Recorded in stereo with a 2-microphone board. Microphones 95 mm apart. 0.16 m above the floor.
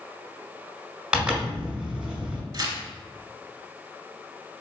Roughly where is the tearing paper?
Right.